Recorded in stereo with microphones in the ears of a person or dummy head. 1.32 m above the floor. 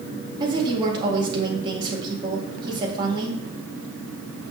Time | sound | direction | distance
0.4 | a woman speaking | 25° right (ahead or behind) | 2 m